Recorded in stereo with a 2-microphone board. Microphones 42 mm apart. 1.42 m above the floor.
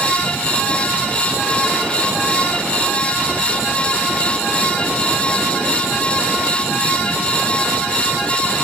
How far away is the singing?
I don't hear singing.